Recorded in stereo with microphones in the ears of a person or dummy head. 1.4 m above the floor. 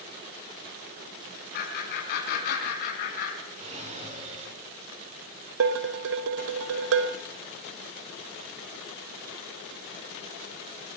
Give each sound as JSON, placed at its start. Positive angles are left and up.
{"t": 1.5, "sound": "laughter", "side_deg": 60, "distance_m": 7.5}
{"t": 3.6, "sound": "a drawer", "side_deg": -40, "distance_m": 7.5}
{"t": 5.6, "sound": "dishes clattering", "side_deg": -60, "distance_m": 0.9}